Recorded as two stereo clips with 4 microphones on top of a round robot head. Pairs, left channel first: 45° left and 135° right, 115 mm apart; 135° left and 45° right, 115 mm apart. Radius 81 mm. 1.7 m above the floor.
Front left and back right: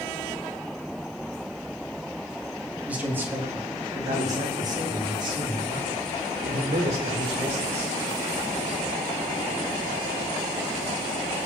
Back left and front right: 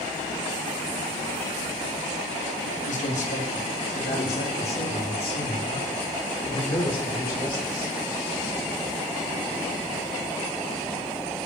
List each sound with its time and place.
2.9 s a man speaking: 150° left, 4 m; by 8.0 s 170° right, 7.5 m